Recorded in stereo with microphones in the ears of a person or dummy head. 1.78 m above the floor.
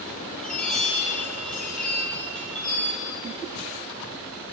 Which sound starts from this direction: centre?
A chime, at 0.4 s.